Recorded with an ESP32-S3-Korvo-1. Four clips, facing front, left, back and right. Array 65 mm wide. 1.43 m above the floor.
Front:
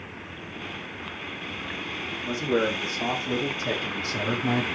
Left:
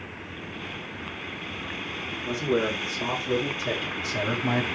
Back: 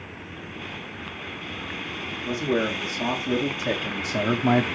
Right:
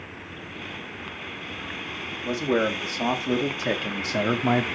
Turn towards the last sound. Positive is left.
turn(degrees=-140)